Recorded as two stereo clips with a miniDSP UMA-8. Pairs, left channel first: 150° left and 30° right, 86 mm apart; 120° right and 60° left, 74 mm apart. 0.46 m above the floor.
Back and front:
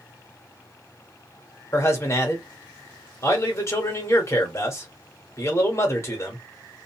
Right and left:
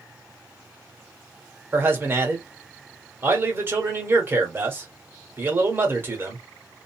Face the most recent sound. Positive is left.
turn(degrees=105)